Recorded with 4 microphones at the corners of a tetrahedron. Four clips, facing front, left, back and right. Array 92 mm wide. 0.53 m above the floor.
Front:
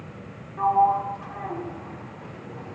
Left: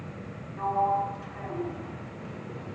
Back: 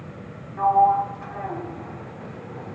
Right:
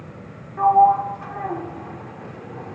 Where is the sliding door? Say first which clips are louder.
Right 12 dB, back 2 dB; 130° right, 4 m.